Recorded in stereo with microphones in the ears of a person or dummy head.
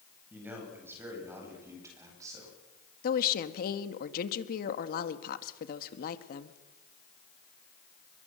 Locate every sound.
0.3 s a man speaking: 5° right (ahead or behind), 9 m; by 2.6 s 20° right (ahead or behind), 10.5 m
3.0 s a woman speaking: 55° left (ahead or behind), 1.7 m